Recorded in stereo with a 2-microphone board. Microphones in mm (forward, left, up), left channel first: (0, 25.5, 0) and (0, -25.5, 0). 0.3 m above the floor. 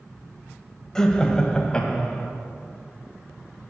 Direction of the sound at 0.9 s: 10° left (ahead or behind).